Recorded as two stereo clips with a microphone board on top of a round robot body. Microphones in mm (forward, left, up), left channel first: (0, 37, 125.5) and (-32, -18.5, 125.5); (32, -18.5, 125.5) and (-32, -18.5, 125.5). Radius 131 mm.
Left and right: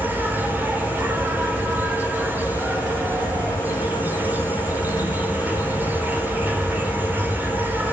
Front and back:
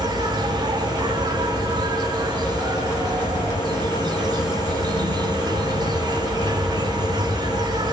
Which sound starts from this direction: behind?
An insect, at 0.0 s.